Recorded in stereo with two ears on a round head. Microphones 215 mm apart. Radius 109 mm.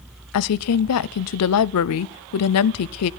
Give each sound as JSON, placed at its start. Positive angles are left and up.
{"t": 0.3, "sound": "a woman speaking", "side_deg": 70, "distance_m": 0.5}